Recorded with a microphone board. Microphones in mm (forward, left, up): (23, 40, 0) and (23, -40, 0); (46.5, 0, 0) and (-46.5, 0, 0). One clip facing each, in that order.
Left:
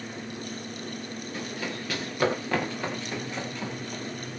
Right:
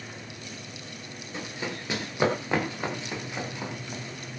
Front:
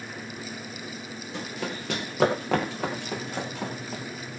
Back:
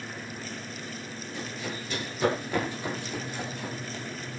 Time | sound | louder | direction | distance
1.3 | running footsteps | right 1 dB, front 3 dB | 20° right | 7.5 m